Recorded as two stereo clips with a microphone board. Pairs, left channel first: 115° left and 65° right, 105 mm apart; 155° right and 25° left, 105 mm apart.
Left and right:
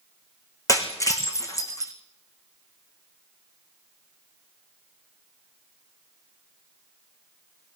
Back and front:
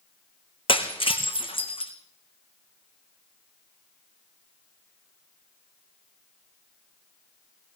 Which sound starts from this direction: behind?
Breaking glass, at 0.7 s.